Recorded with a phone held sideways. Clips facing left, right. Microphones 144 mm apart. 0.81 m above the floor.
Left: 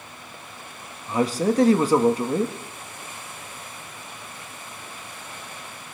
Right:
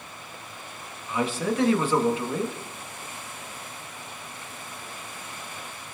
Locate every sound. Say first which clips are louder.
1.1 s a man speaking: left 5 dB; 40° left (ahead or behind), 0.9 m